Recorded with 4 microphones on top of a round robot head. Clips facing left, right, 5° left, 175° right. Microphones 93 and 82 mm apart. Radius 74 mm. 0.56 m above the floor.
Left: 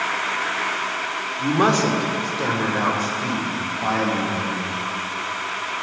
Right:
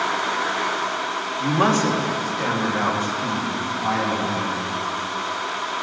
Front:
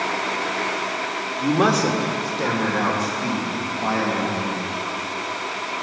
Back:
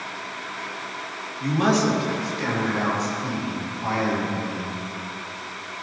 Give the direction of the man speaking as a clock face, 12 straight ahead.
11 o'clock.